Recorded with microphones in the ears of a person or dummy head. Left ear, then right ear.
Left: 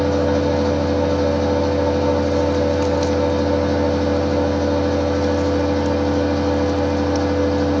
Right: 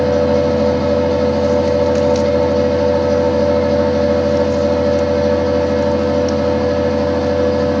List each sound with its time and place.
0.0 s a fan: 65° left (ahead or behind), 1.2 m